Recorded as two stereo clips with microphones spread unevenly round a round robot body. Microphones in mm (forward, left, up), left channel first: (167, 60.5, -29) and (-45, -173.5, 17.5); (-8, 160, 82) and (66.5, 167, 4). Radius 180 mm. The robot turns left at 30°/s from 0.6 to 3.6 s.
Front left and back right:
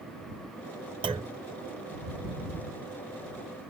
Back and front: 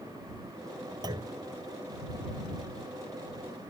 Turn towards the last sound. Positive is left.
turn(degrees=160)